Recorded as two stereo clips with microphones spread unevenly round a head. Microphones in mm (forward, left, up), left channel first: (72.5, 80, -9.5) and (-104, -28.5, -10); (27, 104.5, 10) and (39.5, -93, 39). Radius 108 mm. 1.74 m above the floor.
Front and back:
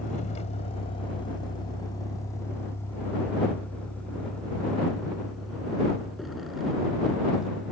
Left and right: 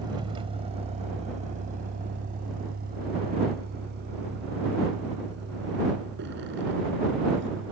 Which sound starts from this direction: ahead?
A vehicle, at 0.0 s.